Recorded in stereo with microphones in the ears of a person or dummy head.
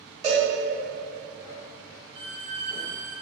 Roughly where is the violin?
Right.